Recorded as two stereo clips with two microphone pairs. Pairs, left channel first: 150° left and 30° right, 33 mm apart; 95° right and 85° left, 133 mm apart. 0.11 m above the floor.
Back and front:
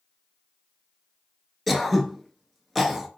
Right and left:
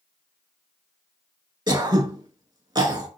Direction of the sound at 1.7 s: 60° left.